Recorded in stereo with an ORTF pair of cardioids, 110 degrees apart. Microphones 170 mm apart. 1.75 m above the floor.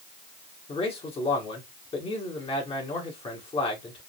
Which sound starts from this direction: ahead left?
A man speaking, at 0.7 s.